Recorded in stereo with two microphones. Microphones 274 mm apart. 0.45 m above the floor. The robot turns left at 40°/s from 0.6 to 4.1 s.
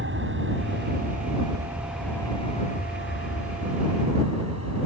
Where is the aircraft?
45° right (ahead or behind); by 4.9 s 65° left (ahead or behind).